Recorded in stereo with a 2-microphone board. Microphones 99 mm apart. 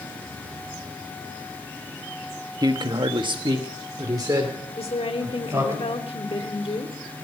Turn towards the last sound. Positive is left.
turn(degrees=75)  # may be behind; listen again after turning